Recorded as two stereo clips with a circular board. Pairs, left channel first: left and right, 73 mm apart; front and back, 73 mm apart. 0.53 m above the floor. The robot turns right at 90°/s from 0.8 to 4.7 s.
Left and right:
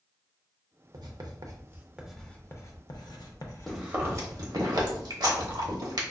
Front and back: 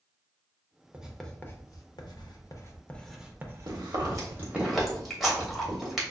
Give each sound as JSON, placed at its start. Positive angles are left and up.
{"t": 0.9, "sound": "writing", "azimuth_deg": -105, "distance_m": 0.6}
{"t": 3.7, "sound": "chewing", "azimuth_deg": 175, "distance_m": 1.0}